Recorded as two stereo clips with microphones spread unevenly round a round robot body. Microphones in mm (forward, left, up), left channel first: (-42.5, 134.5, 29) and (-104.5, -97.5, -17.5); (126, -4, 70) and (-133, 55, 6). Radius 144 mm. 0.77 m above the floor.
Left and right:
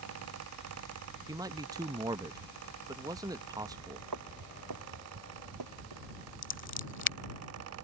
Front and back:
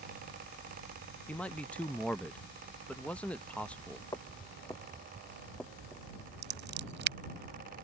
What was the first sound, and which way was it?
A man speaking, 120° right.